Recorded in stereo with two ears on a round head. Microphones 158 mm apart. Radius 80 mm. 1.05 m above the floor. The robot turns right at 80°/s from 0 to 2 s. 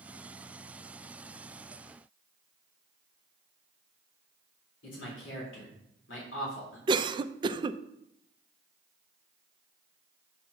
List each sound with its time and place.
4.8 s a man speaking: 80° left, 3.5 m
6.9 s a cough: 25° right (ahead or behind), 0.6 m